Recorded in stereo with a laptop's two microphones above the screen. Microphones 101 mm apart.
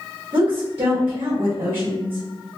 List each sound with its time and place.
0.3 s a woman speaking: 80° right, 1.7 m